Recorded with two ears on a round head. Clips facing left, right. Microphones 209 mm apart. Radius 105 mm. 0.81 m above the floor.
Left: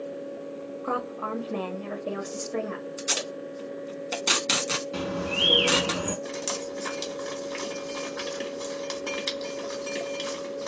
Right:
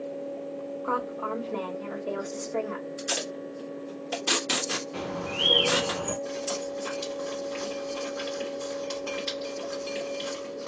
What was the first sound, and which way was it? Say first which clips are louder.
A woman speaking: left 1 dB; 50° left (ahead or behind).